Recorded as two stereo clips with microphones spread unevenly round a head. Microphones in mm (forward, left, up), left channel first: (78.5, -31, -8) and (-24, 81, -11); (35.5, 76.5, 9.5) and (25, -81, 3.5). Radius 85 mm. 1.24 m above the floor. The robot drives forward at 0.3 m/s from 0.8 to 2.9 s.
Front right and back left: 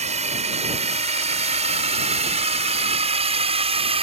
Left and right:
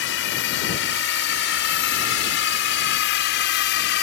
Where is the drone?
90° left; by 4.0 s 80° left.